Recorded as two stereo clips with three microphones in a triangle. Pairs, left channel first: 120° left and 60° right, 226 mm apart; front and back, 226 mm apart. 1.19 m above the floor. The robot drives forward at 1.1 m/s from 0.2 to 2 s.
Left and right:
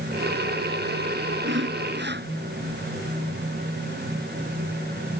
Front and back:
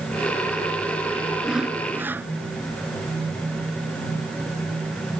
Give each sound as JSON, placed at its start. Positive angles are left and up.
{"t": 1.4, "sound": "sawing", "azimuth_deg": -90}